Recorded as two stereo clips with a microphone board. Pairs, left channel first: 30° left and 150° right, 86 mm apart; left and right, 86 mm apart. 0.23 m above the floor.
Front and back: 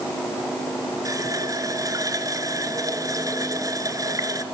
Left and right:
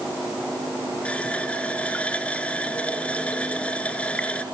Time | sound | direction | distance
1.1 | a running tap | 165° left | 2 m